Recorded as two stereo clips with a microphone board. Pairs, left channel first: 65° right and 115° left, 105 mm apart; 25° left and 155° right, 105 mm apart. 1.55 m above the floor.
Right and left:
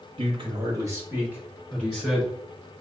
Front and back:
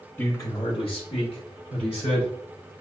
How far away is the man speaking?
About 0.9 m.